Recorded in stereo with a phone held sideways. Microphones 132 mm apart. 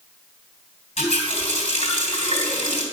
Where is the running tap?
65° left (ahead or behind), 3 m.